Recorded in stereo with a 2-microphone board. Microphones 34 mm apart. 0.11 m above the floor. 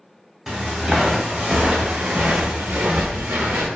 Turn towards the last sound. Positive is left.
turn(degrees=-85)